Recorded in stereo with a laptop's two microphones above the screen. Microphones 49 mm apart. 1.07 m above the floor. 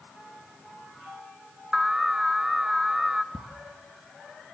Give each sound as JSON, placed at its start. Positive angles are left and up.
{"t": 1.7, "sound": "an alarm", "side_deg": -10, "distance_m": 1.4}
{"t": 3.3, "sound": "ticking", "side_deg": -20, "distance_m": 1.6}